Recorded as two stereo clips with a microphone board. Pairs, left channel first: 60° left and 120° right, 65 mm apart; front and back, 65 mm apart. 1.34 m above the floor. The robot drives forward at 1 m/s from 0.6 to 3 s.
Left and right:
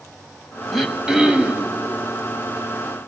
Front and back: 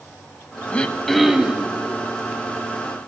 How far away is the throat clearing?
About 1.2 m.